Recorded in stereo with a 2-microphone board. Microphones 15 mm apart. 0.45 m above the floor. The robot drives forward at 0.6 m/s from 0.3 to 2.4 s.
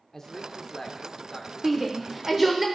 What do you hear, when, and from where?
0.1 s a man speaking: 25° left (ahead or behind), 0.9 m; by 2.5 s 15° left (ahead or behind), 1.4 m
1.6 s a shout: 10° right (ahead or behind), 0.8 m; by 2.6 s 5° right (ahead or behind), 1.1 m